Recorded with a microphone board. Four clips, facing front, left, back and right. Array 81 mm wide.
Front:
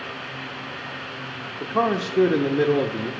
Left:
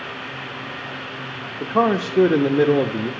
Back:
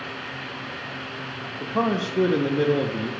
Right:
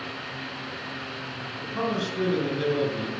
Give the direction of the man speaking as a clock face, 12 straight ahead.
9 o'clock.